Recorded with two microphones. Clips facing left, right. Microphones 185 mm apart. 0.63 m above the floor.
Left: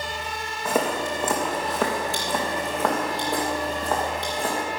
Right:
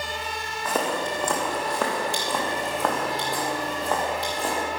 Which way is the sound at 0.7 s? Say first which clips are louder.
Left 2 dB; 10° left (ahead or behind).